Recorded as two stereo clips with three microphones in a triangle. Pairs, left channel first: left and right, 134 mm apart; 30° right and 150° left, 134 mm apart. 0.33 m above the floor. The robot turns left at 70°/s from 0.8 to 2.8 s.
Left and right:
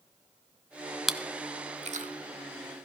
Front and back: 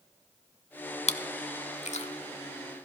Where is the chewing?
5° right, 0.7 m; by 2.9 s 125° right, 0.7 m.